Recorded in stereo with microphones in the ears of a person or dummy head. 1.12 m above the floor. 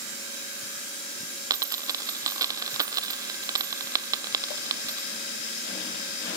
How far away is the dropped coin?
About 1.1 m.